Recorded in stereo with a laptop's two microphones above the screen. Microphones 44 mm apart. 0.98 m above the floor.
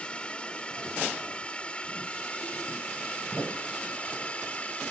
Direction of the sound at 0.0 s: 20° left (ahead or behind).